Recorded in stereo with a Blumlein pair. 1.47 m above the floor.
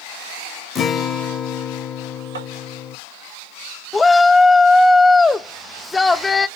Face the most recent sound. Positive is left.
turn(degrees=10)